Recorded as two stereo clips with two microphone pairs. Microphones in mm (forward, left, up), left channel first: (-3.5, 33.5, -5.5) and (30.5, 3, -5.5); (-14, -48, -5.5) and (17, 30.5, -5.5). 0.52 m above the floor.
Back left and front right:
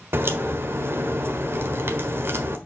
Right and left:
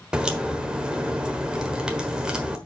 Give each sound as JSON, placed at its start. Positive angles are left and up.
{"t": 0.1, "sound": "a crack", "azimuth_deg": -15, "distance_m": 1.3}